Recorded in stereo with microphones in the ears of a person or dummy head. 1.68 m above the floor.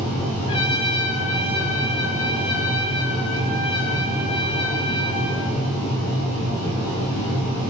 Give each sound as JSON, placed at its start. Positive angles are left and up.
{"t": 0.5, "sound": "a trumpet", "side_deg": 30, "distance_m": 8.5}